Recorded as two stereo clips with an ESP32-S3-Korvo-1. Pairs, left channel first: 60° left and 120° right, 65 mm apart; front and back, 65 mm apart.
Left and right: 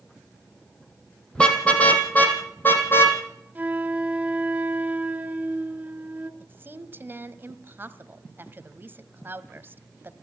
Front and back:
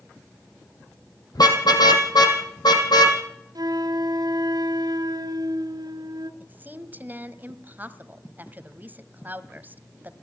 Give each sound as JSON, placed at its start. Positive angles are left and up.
{"t": 1.4, "sound": "a car horn", "azimuth_deg": -15, "distance_m": 3.5}
{"t": 3.5, "sound": "a flute", "azimuth_deg": 175, "distance_m": 1.3}
{"t": 6.4, "sound": "a woman speaking", "azimuth_deg": -145, "distance_m": 1.4}